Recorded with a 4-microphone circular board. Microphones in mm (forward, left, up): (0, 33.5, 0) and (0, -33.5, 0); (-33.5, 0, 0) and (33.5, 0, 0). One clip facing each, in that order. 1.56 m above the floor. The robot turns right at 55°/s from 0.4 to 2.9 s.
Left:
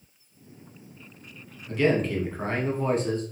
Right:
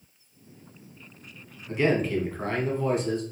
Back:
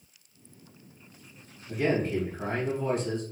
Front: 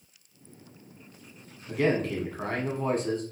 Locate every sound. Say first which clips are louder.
1.7 s a man speaking: left 1 dB, front 1 dB; 20° right, 1.1 m; by 3.2 s 45° left, 1.1 m